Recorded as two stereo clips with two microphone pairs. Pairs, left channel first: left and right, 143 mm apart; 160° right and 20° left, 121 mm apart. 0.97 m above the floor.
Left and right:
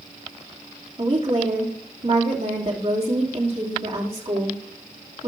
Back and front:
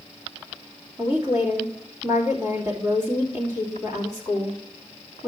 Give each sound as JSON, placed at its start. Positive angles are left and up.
{"t": 1.0, "sound": "a woman speaking", "azimuth_deg": -45, "distance_m": 2.5}